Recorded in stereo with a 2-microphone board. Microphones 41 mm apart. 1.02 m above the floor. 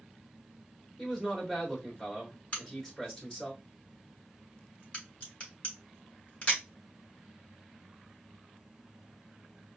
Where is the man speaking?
15° left (ahead or behind), 2.5 m.